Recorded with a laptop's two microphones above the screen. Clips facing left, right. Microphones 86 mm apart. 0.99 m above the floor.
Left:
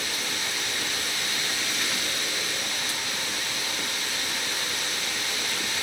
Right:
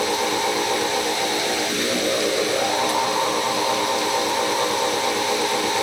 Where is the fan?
75° right (ahead or behind).